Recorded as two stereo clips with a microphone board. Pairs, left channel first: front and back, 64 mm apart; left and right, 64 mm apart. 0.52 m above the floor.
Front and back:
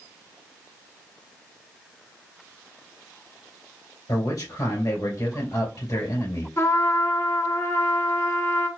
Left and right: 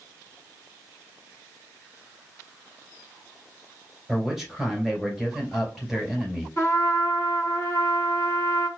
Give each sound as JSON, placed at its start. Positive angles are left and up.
{"t": 4.1, "sound": "a man speaking", "azimuth_deg": 0, "distance_m": 2.5}
{"t": 6.6, "sound": "a trumpet", "azimuth_deg": 40, "distance_m": 1.9}